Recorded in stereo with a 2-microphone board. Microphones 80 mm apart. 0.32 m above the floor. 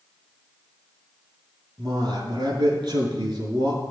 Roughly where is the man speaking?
Right.